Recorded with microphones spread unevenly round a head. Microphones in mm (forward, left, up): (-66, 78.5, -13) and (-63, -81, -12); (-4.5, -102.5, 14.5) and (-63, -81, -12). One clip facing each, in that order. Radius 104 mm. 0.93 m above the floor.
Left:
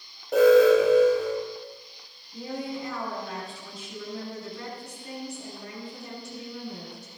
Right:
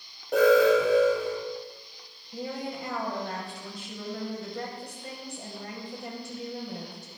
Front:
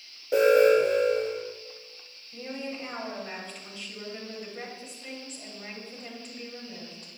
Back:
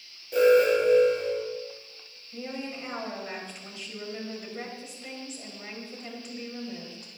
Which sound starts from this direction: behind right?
A woman speaking, at 2.3 s.